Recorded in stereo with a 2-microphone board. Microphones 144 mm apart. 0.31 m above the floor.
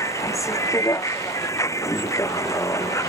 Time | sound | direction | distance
0.0 | a vehicle | 20° left (ahead or behind) | ?